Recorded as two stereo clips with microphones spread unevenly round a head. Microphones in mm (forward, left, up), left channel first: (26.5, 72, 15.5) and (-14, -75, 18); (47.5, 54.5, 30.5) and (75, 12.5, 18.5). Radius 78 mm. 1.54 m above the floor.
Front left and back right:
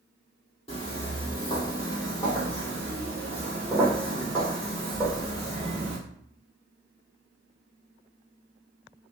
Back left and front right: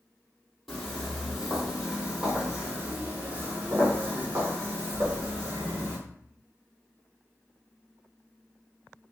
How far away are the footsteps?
About 1.7 m.